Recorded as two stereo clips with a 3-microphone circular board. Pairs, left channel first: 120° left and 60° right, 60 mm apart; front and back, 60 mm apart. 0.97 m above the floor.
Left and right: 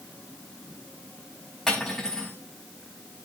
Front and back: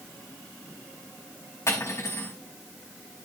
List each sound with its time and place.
1.7 s cutlery clinking: 40° left, 4.5 m